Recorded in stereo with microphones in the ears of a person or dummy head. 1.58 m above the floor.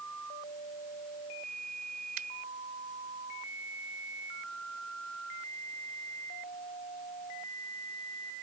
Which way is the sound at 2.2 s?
50° right (ahead or behind).